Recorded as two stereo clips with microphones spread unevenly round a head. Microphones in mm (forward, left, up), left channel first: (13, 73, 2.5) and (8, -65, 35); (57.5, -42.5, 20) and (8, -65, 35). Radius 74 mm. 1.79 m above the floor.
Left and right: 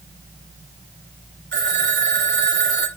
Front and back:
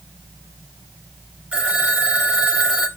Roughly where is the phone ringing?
Right.